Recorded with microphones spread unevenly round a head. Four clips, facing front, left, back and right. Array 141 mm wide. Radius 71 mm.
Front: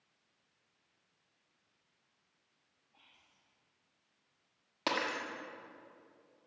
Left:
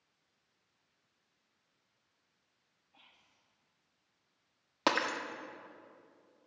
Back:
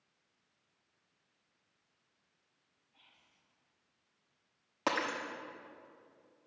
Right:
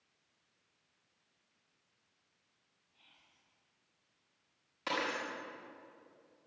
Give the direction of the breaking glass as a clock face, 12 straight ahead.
9 o'clock.